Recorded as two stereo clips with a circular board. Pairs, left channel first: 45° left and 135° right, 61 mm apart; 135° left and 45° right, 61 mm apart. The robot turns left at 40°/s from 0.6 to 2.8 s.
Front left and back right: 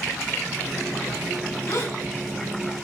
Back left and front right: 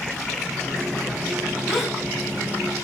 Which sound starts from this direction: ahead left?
A gasp, at 1.7 s.